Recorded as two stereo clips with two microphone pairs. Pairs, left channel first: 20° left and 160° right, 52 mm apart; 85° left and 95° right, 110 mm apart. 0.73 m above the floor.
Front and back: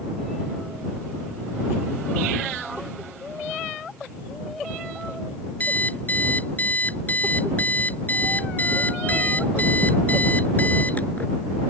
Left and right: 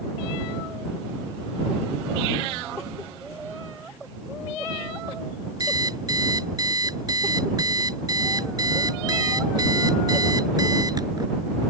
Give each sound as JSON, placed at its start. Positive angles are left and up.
{"t": 5.6, "sound": "an alarm clock", "azimuth_deg": -40}